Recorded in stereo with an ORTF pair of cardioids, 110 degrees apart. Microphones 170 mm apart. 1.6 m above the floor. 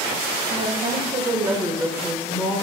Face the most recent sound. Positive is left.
turn(degrees=25)